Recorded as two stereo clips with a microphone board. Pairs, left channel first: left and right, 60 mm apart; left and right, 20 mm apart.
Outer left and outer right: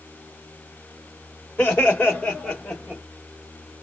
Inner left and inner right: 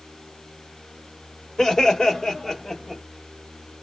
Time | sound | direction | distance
1.6 | laughter | 35° left (ahead or behind) | 1.7 m